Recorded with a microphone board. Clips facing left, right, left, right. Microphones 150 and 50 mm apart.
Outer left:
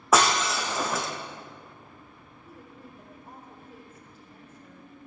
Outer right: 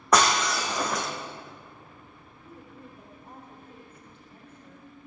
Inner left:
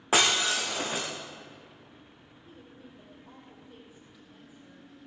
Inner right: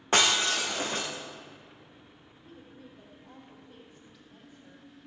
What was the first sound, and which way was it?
Breaking glass, 5° left (ahead or behind).